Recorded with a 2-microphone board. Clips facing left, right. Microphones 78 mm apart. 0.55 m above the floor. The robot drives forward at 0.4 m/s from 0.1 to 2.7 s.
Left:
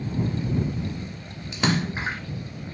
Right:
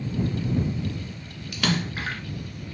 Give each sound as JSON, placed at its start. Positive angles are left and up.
{"t": 1.5, "sound": "a splash", "side_deg": 25, "distance_m": 1.5}